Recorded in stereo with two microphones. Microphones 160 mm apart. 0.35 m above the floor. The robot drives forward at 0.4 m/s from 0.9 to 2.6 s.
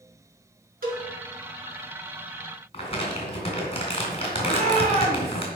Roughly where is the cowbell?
Right.